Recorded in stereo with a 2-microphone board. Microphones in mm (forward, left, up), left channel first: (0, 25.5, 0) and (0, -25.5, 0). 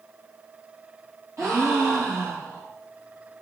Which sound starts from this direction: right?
A gasp, at 1.4 s.